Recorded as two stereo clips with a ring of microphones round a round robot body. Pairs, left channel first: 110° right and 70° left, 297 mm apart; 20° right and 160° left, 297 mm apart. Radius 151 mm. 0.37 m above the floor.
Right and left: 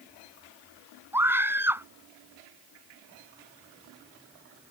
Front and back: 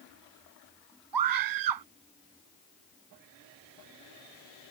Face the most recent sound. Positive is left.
turn(degrees=150)